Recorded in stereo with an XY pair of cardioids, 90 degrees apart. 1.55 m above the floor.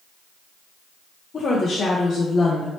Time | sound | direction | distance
1.3 | a woman speaking | 50° left | 0.7 m